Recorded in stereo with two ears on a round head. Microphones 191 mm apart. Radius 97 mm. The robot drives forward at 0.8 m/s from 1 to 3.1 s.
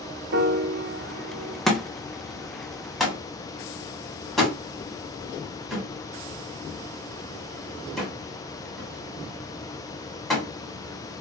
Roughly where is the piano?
Right.